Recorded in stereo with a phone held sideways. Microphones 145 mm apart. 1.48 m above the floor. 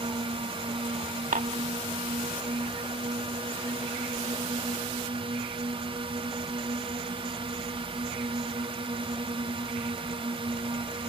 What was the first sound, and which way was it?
A drone, 35° right (ahead or behind).